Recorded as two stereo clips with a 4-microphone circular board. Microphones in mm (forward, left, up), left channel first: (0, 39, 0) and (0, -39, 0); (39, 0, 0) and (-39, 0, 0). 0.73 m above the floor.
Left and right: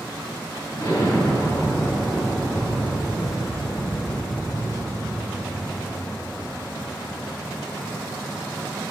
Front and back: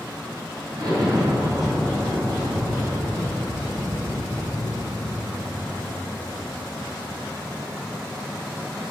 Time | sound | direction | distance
0.7 | an explosion | 140° left | 3.5 m